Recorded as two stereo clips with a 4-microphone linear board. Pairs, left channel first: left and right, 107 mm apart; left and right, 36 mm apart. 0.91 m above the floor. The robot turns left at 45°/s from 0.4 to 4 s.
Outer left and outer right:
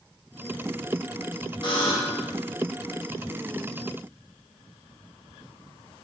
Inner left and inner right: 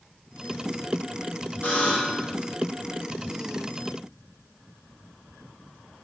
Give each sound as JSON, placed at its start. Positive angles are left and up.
{"t": 1.6, "sound": "a buzzer", "side_deg": 45, "distance_m": 0.9}